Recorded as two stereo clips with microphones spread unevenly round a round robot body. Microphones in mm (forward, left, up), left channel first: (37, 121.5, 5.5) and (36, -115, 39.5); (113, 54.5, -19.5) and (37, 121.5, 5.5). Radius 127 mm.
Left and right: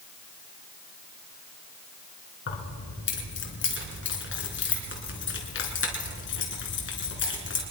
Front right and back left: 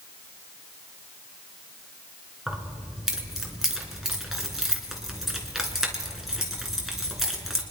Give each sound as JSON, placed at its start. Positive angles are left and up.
{"t": 2.5, "sound": "keys jangling", "azimuth_deg": 50, "distance_m": 3.0}